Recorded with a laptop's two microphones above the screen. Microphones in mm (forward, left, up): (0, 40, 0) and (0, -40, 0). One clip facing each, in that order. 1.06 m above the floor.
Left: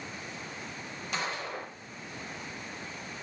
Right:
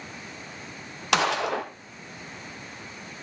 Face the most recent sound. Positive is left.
turn(degrees=-75)  # may be behind; listen again after turning